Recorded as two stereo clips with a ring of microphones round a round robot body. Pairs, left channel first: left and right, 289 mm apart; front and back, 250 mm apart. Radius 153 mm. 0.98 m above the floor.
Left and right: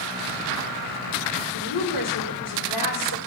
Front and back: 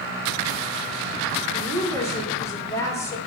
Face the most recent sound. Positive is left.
turn(degrees=80)